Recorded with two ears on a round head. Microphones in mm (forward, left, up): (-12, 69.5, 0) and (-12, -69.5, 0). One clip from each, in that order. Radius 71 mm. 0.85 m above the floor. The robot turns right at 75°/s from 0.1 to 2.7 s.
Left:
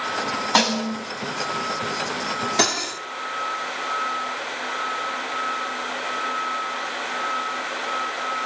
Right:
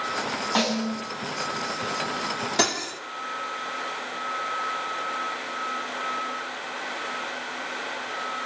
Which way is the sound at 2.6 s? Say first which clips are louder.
Left 2 dB; centre (ahead or behind).